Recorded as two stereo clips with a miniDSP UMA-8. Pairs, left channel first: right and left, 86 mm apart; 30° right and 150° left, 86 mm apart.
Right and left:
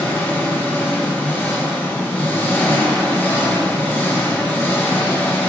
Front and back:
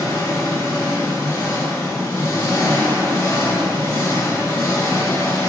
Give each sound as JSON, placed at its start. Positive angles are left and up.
{"t": 0.0, "sound": "an engine running", "azimuth_deg": -45, "distance_m": 1.0}